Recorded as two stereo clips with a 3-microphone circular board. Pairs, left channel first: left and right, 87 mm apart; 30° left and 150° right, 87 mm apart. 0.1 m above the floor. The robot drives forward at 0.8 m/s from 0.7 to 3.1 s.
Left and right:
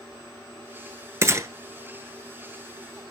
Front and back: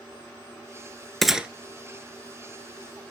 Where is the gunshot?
60° right, 0.7 m; by 1.5 s 85° right, 0.7 m.